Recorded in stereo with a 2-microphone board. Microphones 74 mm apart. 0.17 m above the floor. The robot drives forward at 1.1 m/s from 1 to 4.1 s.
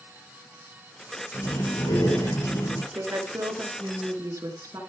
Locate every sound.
1.3 s breathing: 80° left, 6 m; by 2.8 s 75° left (ahead or behind), 6 m
2.9 s a woman speaking: 55° right (ahead or behind), 2.5 m